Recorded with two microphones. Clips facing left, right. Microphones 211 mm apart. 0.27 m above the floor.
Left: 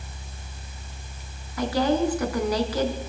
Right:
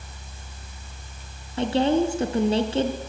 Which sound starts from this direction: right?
A woman speaking, at 1.6 s.